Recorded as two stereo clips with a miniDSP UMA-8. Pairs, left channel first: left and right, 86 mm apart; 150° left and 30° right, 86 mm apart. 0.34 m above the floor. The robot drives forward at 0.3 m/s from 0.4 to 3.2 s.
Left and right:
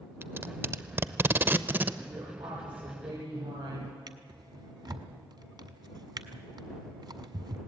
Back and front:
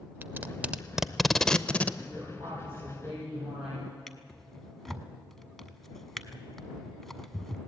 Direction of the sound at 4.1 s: 125° right.